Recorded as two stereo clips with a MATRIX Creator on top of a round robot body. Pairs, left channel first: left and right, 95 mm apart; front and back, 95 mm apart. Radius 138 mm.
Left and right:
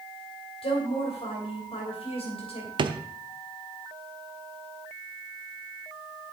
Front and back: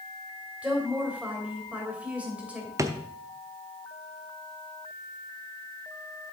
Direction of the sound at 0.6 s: 105° left.